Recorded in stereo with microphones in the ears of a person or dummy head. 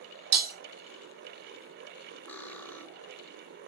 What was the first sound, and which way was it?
Breaking glass, 45° right (ahead or behind).